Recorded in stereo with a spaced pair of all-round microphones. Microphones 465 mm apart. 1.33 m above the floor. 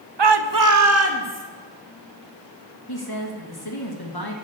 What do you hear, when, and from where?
0.2 s a shout: 65° right (ahead or behind), 0.8 m; by 1.4 s 25° right (ahead or behind), 2.0 m
2.9 s a woman speaking: 50° left (ahead or behind), 2 m